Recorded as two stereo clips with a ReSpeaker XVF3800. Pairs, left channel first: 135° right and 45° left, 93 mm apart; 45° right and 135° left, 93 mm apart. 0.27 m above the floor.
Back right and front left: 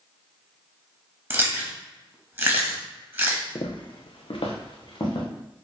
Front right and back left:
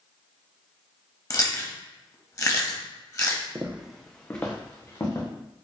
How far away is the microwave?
I don't hear a microwave.